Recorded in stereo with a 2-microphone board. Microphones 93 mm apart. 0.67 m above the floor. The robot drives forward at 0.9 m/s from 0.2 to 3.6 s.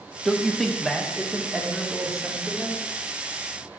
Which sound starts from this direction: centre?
A man speaking, at 0.2 s.